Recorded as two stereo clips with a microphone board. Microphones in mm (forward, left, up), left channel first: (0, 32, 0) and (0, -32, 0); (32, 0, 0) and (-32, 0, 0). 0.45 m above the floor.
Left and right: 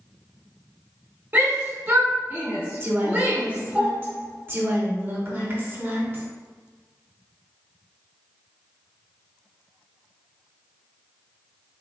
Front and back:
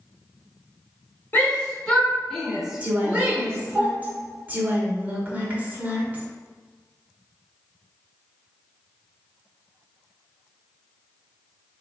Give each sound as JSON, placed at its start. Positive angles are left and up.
{"t": 1.3, "sound": "a shout", "azimuth_deg": -45, "distance_m": 1.4}
{"t": 2.8, "sound": "a woman speaking", "azimuth_deg": -125, "distance_m": 1.0}